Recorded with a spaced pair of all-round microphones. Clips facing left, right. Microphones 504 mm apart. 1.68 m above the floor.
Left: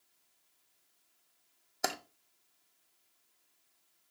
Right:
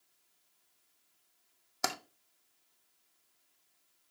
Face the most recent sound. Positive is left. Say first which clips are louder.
# left 1 dB
turn(degrees=-25)  # may be behind; listen again after turning